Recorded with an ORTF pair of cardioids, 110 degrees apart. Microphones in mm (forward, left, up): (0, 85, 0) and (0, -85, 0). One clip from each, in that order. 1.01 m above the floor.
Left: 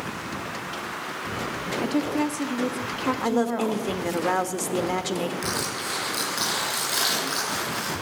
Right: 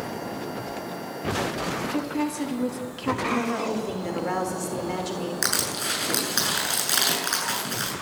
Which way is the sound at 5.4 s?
65° right.